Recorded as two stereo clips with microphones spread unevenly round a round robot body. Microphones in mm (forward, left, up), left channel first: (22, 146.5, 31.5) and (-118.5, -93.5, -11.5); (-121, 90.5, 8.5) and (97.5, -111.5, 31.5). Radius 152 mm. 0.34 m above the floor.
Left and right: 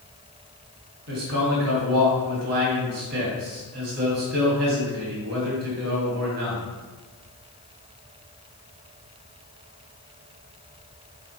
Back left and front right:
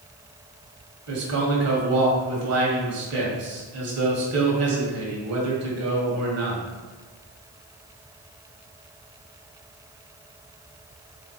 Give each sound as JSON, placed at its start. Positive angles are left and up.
{"t": 1.1, "sound": "a man speaking", "azimuth_deg": -75, "distance_m": 2.5}